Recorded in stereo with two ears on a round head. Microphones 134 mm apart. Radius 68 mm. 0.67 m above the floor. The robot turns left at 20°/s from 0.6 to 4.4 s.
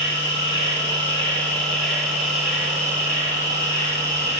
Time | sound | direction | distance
0.0 | an insect | 30° left | 1.4 m